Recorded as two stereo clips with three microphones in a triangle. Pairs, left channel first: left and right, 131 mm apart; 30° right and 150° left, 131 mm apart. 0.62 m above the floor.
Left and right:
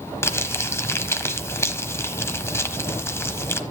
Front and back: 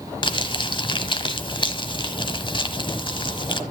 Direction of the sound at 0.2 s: 20° left.